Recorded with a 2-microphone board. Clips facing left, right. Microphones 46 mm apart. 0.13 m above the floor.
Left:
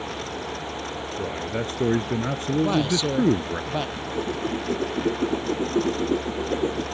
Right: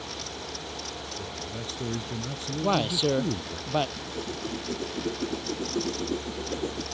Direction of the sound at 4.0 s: 30° left (ahead or behind).